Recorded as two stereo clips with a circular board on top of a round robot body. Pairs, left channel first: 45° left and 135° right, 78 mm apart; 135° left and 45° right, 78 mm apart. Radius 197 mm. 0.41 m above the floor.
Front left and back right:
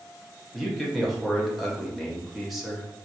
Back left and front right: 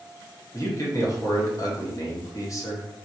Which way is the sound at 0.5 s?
135° left.